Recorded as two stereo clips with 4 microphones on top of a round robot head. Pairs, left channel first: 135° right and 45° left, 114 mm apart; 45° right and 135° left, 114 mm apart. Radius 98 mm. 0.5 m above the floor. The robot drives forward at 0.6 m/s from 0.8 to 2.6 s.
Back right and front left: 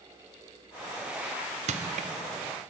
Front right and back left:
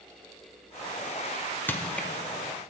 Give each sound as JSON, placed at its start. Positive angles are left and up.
{"t": 1.7, "sound": "crushing", "azimuth_deg": 30, "distance_m": 1.2}